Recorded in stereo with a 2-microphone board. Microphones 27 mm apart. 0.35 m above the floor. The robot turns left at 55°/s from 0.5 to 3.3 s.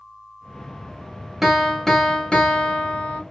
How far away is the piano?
About 0.7 m.